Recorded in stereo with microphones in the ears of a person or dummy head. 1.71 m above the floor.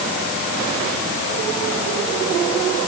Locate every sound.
Only background noise.